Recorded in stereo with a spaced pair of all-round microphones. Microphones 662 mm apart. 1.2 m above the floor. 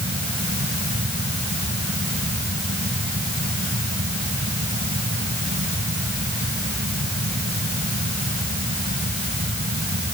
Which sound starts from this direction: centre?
A fan, at 0.0 s.